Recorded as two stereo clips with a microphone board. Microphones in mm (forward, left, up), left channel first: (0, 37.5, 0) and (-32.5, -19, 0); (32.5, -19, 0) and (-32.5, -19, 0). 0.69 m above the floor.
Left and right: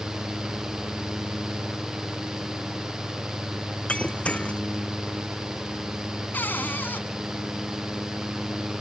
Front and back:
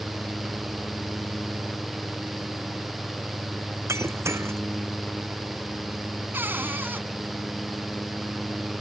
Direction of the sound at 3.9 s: 130° left.